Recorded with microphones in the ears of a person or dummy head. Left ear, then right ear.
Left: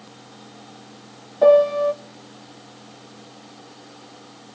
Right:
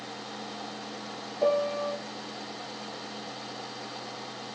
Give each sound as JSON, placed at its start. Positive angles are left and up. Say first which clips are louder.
{"t": 1.4, "sound": "a piano", "louder": "left 12 dB", "side_deg": 45, "distance_m": 0.6}